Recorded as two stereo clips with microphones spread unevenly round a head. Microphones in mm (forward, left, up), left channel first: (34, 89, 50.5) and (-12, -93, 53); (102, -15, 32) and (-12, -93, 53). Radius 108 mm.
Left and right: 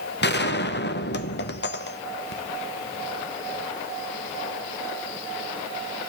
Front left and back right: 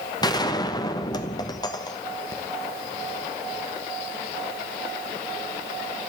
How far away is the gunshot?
About 1.2 m.